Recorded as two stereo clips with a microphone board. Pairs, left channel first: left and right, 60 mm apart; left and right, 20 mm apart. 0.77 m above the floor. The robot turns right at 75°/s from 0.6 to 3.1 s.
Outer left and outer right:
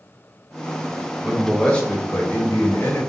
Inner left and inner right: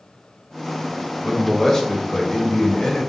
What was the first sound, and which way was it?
A man speaking, 10° right.